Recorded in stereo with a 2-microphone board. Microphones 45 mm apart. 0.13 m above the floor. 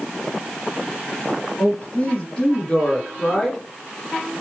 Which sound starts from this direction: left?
A man speaking, at 1.6 s.